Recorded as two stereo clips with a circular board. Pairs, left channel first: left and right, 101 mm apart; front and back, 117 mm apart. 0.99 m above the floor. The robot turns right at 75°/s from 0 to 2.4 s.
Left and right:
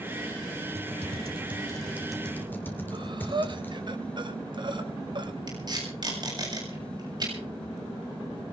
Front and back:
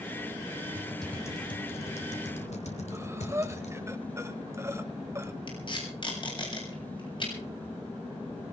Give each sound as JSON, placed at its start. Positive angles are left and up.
{"t": 0.8, "sound": "typing on a keyboard", "azimuth_deg": -105, "distance_m": 2.5}
{"t": 2.9, "sound": "breathing", "azimuth_deg": -115, "distance_m": 1.3}
{"t": 5.5, "sound": "tape being pulled", "azimuth_deg": -45, "distance_m": 7.5}